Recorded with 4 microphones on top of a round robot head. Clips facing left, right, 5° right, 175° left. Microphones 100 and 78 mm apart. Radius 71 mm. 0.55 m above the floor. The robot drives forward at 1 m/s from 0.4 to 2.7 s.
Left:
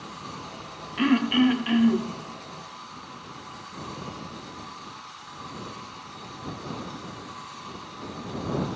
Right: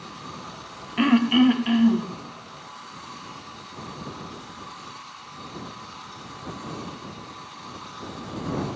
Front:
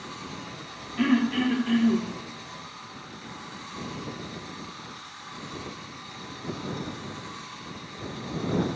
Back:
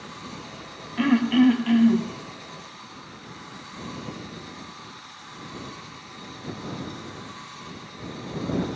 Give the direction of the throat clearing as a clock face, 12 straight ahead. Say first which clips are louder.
Right 3 dB, back 4 dB; 4 o'clock.